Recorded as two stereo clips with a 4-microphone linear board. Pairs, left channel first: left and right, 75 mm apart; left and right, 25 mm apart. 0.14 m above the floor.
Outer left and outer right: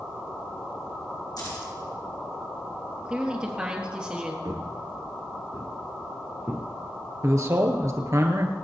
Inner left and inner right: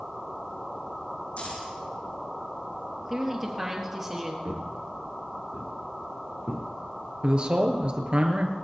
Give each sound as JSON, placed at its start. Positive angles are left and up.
{"t": 1.4, "sound": "keys jangling", "side_deg": 60, "distance_m": 5.5}
{"t": 3.0, "sound": "a woman speaking", "side_deg": -15, "distance_m": 3.5}
{"t": 4.5, "sound": "footsteps", "side_deg": -55, "distance_m": 2.0}
{"t": 7.2, "sound": "a man speaking", "side_deg": -45, "distance_m": 2.5}